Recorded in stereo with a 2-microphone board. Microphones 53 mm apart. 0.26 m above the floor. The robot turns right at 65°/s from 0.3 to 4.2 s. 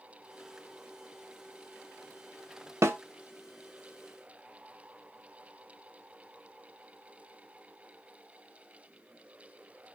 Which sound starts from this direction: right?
A snare drum, at 2.8 s.